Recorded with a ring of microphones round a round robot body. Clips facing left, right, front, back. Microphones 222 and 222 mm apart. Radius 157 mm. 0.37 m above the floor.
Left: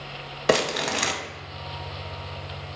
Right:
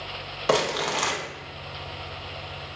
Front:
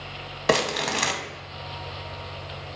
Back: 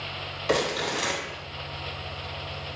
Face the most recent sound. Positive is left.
turn(degrees=25)